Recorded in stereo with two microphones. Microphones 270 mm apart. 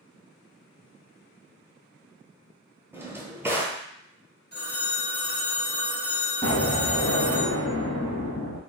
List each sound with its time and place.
2.9 s a drawer: 10° right (ahead or behind), 0.5 m
4.5 s a phone ringing: 40° left (ahead or behind), 1.0 m
6.4 s an explosion: 15° left (ahead or behind), 0.9 m